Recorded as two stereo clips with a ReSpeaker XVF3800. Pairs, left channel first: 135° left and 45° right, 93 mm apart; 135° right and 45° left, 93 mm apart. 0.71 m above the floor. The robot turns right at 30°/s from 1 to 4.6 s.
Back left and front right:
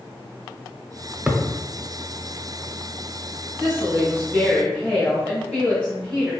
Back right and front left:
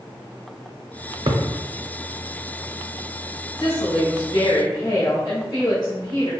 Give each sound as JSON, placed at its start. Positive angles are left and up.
{"t": 1.3, "sound": "a thud", "azimuth_deg": 35, "distance_m": 0.6}
{"t": 3.6, "sound": "a woman speaking", "azimuth_deg": 180, "distance_m": 1.7}